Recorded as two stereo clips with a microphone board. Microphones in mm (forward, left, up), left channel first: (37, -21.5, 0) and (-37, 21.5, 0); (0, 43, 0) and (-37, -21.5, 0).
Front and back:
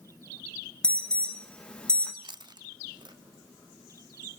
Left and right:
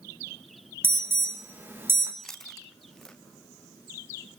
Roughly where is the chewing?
Behind left.